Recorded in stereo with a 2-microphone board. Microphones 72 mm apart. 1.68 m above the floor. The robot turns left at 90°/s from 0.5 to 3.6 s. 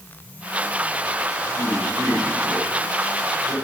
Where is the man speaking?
75° right (ahead or behind), 7.5 m; by 3.5 s 75° left (ahead or behind), 7.5 m.